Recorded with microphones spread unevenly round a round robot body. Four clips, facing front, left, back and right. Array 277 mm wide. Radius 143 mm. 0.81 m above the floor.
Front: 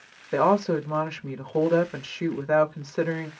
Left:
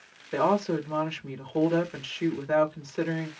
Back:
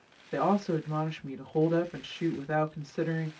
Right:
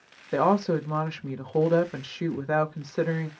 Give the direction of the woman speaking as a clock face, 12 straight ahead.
1 o'clock.